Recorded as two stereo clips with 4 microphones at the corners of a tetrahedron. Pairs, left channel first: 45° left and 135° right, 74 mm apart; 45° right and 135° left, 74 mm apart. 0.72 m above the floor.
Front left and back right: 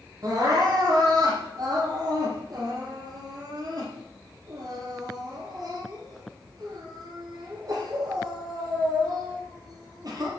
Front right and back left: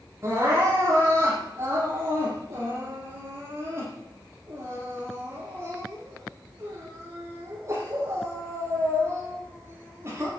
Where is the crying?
170° right, 7 m.